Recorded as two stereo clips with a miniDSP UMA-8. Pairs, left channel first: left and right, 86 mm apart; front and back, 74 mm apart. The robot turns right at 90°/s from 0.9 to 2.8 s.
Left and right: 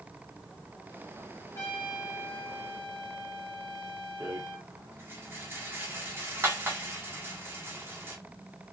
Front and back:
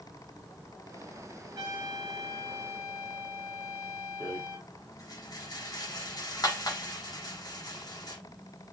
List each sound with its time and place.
1.6 s a trumpet: 140° left, 2 m; by 4.7 s 105° right, 2 m
4.2 s a rattle: 30° right, 1.4 m